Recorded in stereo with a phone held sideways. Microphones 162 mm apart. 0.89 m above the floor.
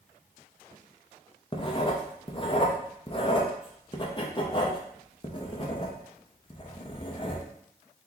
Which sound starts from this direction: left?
Writing, at 1.5 s.